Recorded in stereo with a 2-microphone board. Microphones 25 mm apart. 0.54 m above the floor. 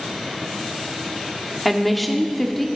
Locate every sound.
1.6 s a woman speaking: centre (ahead or behind), 1.1 m